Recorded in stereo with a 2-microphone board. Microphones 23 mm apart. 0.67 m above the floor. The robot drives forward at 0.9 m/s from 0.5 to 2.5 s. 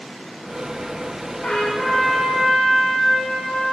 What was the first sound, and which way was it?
A trumpet, 60° left (ahead or behind).